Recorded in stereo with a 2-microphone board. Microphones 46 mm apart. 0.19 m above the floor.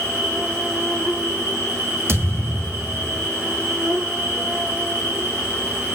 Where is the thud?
60° right (ahead or behind), 2.5 m.